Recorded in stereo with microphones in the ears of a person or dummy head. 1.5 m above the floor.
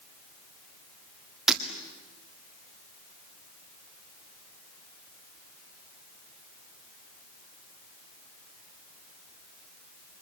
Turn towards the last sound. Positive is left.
turn(degrees=-5)  # may be behind; listen again after turning